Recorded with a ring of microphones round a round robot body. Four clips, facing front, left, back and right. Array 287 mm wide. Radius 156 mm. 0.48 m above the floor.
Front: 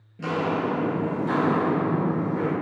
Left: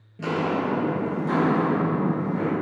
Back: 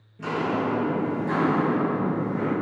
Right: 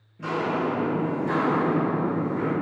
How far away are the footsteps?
About 0.7 m.